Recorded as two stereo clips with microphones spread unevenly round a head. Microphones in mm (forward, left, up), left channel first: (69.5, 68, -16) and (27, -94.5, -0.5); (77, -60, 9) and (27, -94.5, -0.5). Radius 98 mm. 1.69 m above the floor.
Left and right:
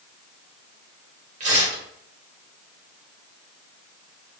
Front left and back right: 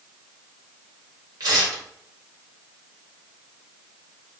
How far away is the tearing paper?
About 0.9 m.